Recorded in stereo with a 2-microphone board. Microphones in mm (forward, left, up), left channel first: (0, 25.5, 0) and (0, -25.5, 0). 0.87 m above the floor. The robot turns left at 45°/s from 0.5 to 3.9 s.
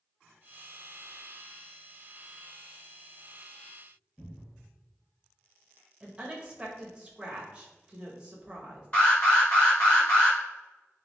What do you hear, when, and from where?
4.2 s a cupboard door: 10° left (ahead or behind), 1.4 m
6.0 s a woman speaking: 20° right (ahead or behind), 0.9 m
8.9 s an alarm: 35° left (ahead or behind), 1.7 m